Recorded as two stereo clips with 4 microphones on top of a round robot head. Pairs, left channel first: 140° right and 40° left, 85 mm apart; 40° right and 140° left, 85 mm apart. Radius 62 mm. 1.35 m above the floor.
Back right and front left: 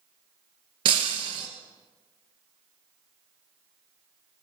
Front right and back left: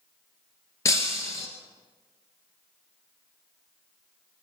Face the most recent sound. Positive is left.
turn(degrees=15)